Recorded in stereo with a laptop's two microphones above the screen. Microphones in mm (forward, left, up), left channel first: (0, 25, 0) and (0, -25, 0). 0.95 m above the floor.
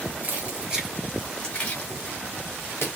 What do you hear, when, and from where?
0.2 s keys jangling: 35° right (ahead or behind), 0.8 m; by 2.9 s 60° left (ahead or behind), 1.0 m